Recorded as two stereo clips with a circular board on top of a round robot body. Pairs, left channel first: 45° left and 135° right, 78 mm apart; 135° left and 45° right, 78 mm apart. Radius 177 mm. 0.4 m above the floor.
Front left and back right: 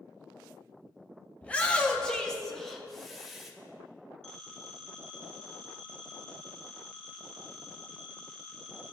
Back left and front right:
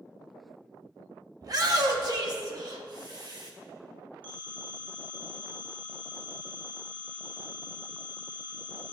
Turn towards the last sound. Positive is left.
turn(degrees=-40)